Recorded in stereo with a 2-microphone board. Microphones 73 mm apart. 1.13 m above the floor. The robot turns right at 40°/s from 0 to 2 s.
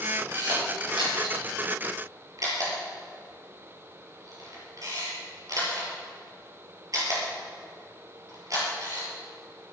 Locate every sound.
0.3 s a camera shutter: 60° right (ahead or behind), 6 m; by 9.1 s 50° right (ahead or behind), 6 m